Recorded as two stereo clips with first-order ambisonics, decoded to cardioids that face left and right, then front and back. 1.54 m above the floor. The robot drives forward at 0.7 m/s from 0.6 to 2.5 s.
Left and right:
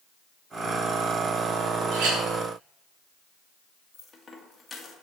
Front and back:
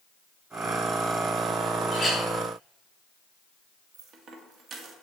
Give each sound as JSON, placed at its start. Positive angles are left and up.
{"t": 1.9, "sound": "a clink", "azimuth_deg": -80, "distance_m": 2.5}
{"t": 3.9, "sound": "a dropped coin", "azimuth_deg": 165, "distance_m": 1.1}